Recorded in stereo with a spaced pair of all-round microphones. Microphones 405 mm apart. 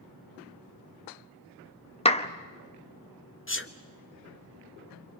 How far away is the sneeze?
About 1.2 m.